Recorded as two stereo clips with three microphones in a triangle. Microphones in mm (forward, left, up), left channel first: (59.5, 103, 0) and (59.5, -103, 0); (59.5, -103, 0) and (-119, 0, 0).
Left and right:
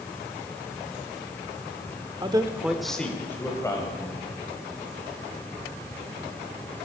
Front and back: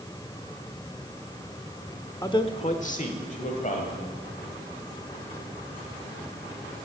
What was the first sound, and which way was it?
A man speaking, 80° right.